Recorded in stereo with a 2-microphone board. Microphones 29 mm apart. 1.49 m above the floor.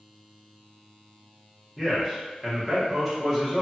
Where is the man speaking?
5° left (ahead or behind), 1.1 m.